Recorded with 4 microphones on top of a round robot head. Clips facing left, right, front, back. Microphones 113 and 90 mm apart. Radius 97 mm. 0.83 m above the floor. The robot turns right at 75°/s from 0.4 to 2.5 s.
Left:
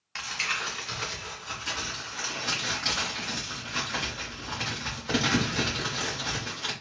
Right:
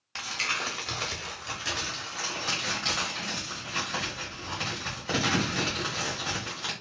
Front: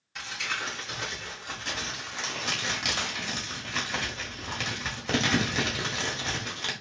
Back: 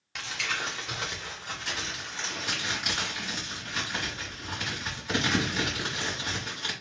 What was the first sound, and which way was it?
Crumpling, 160° right.